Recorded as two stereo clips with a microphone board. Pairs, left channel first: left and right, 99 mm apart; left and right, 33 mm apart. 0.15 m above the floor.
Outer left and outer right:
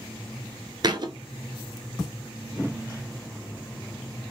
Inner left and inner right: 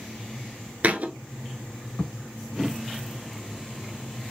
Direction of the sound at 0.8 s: 50° right (ahead or behind).